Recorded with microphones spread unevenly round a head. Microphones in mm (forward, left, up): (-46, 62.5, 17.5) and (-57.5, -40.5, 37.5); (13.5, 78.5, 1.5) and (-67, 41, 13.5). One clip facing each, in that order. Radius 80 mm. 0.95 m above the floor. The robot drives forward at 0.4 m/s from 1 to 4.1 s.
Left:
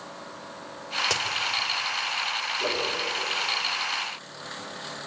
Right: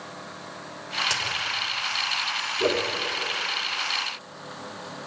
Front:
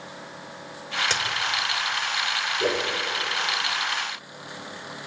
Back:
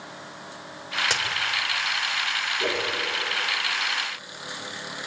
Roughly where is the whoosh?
Right.